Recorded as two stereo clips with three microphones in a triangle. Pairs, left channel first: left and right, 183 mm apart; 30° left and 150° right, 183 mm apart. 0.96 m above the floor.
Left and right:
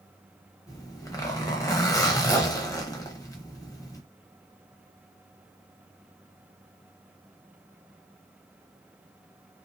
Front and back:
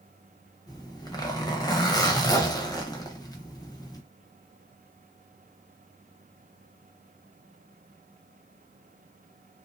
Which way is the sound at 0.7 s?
55° left.